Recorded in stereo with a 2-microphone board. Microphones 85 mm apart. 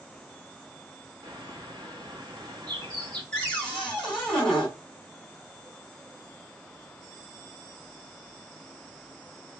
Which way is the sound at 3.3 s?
15° left (ahead or behind).